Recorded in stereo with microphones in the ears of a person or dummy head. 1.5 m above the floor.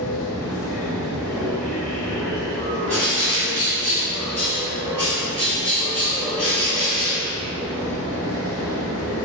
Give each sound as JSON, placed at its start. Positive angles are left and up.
{"t": 0.0, "sound": "a machine running", "side_deg": 15, "distance_m": 1.1}
{"t": 2.9, "sound": "a bird", "side_deg": 5, "distance_m": 1.7}